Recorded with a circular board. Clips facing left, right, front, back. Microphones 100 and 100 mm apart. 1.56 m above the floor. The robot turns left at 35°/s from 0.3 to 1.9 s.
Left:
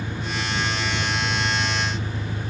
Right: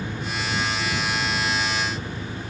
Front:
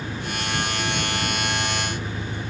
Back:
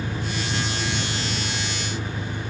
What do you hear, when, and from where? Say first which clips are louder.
0.0 s an engine running: even, back 1 dB; 160° left; by 2.5 s 105° left